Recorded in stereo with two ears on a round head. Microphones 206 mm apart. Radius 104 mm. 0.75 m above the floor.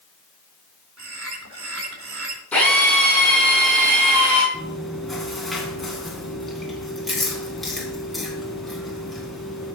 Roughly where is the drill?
Centre.